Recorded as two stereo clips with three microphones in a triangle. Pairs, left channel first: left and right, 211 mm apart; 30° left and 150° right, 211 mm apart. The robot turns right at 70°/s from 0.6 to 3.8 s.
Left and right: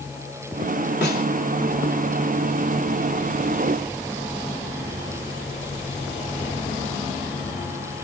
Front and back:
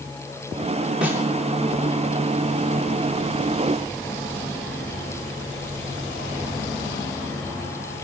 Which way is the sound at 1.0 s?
125° left.